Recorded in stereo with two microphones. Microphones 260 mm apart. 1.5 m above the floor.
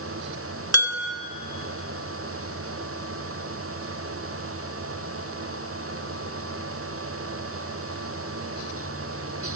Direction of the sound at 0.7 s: 65° right (ahead or behind).